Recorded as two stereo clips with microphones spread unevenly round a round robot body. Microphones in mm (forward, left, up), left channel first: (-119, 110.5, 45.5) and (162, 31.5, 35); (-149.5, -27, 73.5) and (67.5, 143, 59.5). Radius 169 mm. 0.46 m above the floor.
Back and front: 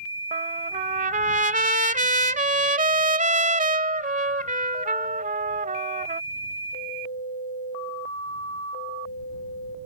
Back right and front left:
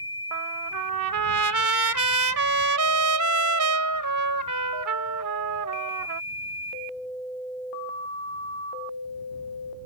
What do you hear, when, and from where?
0.3 s a trumpet: 50° left